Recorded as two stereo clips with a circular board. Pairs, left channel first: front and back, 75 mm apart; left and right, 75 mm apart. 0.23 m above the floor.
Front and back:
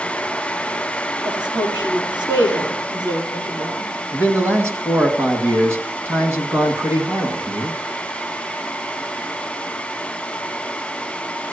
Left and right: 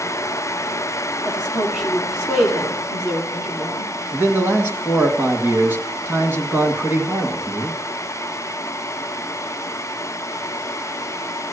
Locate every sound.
1.2 s a woman speaking: 175° right, 5 m
4.1 s a man speaking: 140° right, 2.0 m